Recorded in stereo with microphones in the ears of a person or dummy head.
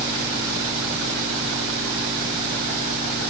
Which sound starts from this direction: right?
An engine running, at 0.0 s.